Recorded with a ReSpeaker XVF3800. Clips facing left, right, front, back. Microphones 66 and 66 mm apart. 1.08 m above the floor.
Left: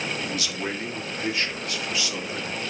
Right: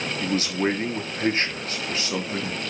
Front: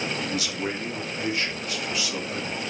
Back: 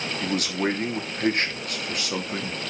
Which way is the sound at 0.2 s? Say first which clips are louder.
Right 6 dB, back 3 dB; 140° right.